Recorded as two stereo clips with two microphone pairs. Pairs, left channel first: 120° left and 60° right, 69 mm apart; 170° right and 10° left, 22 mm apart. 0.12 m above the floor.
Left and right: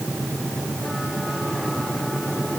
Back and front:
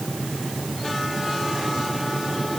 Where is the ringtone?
I don't hear a ringtone.